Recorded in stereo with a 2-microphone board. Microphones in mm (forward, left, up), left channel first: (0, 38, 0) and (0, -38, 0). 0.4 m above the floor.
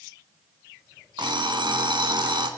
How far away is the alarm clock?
About 1.6 m.